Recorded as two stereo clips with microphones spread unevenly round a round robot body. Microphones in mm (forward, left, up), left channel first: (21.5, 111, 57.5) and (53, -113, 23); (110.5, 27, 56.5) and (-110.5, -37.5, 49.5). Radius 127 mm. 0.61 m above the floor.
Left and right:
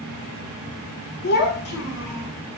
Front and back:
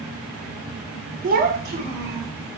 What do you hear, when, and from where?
1.2 s a child speaking: 145° left, 0.6 m; by 2.3 s 150° left, 1.6 m